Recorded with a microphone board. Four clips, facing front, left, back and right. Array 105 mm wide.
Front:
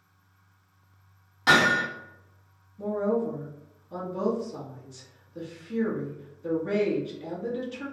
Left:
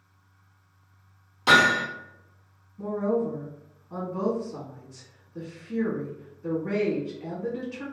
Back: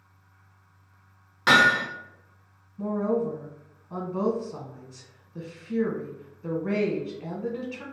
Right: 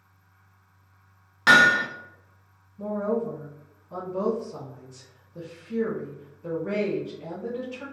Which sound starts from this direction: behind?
A woman speaking, at 2.8 s.